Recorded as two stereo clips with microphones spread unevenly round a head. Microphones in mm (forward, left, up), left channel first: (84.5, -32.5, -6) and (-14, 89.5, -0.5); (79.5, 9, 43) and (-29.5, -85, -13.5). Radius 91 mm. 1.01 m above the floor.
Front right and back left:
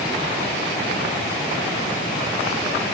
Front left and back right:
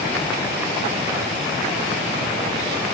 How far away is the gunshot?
I don't hear a gunshot.